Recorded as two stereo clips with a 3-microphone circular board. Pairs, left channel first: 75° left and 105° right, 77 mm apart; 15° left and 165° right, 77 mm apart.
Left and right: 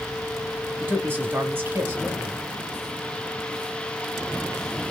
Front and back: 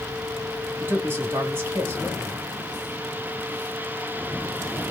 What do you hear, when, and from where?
0.8 s a man speaking: 130° right, 1.9 m